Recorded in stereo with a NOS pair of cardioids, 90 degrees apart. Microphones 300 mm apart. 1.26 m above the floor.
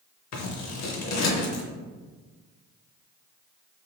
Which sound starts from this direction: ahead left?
Scissors, at 0.3 s.